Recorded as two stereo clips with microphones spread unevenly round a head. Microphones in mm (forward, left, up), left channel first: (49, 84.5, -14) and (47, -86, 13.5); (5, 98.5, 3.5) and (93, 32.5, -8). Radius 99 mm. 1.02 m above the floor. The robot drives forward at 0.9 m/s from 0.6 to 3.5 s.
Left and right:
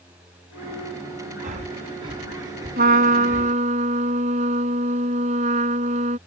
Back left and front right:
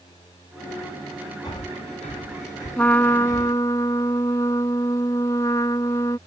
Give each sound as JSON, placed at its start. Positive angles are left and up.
{"t": 1.4, "sound": "breathing", "azimuth_deg": -145}
{"t": 2.8, "sound": "a trumpet", "azimuth_deg": -135}